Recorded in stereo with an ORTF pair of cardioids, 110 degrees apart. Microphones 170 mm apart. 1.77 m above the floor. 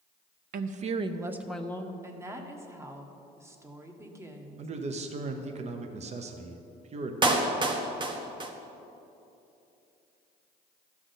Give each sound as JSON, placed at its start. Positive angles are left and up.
{"t": 0.5, "sound": "a woman speaking", "azimuth_deg": -60, "distance_m": 0.8}
{"t": 2.0, "sound": "a woman speaking", "azimuth_deg": -15, "distance_m": 1.2}
{"t": 4.6, "sound": "a man speaking", "azimuth_deg": -40, "distance_m": 1.0}
{"t": 7.2, "sound": "a clap", "azimuth_deg": -30, "distance_m": 1.1}